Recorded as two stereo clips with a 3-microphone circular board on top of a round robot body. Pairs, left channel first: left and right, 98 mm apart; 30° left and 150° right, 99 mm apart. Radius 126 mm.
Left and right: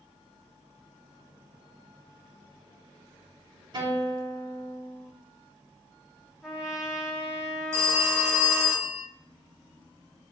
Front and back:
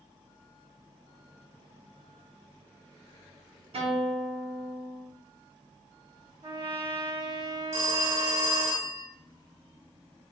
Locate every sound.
3.7 s a guitar: 135° right, 3.5 m
6.4 s a trumpet: 175° right, 2.5 m
7.7 s a phone ringing: 155° right, 3 m